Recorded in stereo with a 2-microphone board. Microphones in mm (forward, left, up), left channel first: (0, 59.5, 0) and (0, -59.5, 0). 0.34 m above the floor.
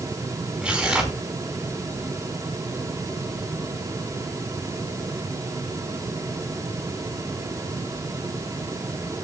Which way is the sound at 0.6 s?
10° right (ahead or behind).